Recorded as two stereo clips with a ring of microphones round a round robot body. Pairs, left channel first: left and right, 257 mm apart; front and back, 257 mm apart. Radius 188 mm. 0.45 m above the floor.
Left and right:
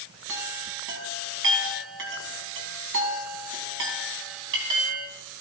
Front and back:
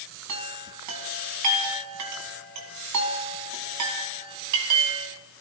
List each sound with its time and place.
0.3 s a chime: 145° right, 1.7 m